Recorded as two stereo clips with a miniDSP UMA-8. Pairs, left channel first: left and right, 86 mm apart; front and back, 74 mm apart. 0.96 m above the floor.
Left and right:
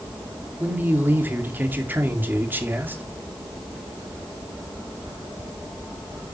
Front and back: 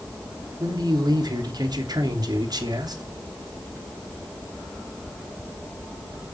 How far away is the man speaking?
About 2.5 m.